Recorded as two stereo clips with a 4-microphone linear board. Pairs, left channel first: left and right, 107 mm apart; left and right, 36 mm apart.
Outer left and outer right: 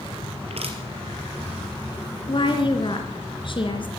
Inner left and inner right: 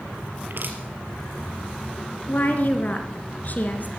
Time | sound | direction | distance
0.5 | crushing | 70° right (ahead or behind) | 3.5 m
2.3 | a woman speaking | 50° left (ahead or behind) | 3 m